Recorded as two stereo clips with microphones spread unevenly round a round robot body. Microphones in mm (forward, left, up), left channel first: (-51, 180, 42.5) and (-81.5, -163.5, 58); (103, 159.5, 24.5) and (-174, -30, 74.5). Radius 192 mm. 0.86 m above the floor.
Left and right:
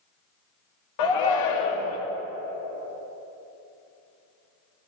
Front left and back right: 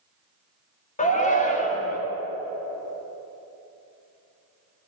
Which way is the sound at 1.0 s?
100° left.